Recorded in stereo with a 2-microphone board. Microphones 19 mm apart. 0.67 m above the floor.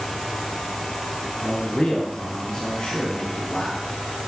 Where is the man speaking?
40° left (ahead or behind), 6.5 m; by 3.8 s 30° left (ahead or behind), 9.5 m.